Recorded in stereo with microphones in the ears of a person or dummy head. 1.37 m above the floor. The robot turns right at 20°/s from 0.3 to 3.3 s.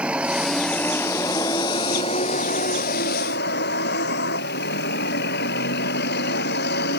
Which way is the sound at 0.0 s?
5° right.